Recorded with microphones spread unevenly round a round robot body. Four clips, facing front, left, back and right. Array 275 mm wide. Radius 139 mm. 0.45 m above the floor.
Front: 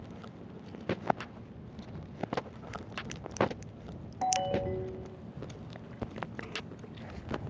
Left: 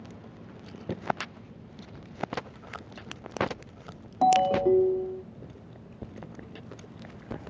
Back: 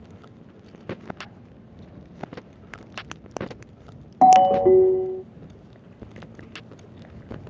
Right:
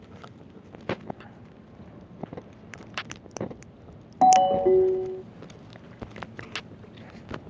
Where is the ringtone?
175° right.